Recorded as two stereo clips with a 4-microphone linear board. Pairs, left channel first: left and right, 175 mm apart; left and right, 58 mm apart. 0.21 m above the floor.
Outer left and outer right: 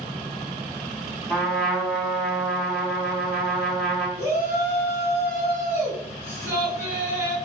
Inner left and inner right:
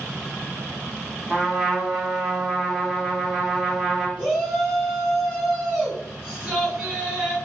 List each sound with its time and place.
1.3 s a trumpet: centre (ahead or behind), 1.2 m
4.2 s a shout: 15° right (ahead or behind), 2.5 m